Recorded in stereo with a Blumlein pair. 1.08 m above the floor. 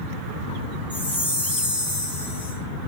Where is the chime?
65° left, 1.1 m.